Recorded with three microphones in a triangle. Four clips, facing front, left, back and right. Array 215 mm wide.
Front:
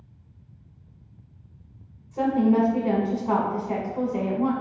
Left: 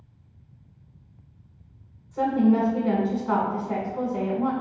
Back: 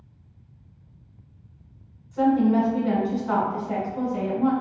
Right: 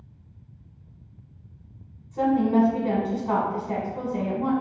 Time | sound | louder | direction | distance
2.1 | a woman speaking | even, back 1 dB | 25° right | 1.1 m